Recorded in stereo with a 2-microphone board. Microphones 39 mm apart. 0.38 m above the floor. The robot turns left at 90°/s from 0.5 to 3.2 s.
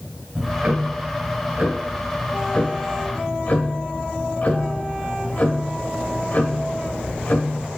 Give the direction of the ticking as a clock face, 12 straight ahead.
12 o'clock.